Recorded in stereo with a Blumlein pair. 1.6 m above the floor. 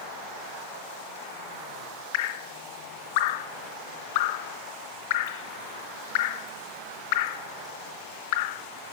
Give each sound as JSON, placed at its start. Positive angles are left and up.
{"t": 2.1, "sound": "dripping", "azimuth_deg": 50, "distance_m": 0.6}